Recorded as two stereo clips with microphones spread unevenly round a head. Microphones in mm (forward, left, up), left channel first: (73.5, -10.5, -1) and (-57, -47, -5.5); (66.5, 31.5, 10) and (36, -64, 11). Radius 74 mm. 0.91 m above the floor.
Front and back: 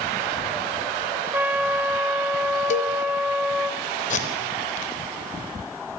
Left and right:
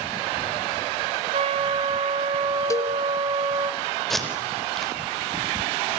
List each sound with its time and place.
1.3 s a trumpet: 85° right, 3.5 m
2.7 s a cowbell: 20° left, 1.1 m
4.1 s tape being pulled: 15° right, 4.5 m